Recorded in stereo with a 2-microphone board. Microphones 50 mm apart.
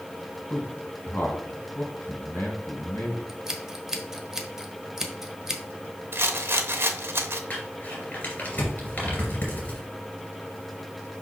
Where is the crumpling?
30° left (ahead or behind), 2.5 m.